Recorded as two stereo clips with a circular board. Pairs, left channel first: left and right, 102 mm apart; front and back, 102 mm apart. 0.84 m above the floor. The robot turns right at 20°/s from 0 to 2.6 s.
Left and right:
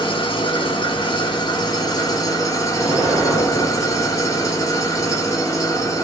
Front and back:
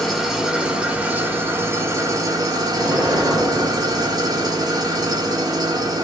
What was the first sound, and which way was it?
An engine running, 90° left.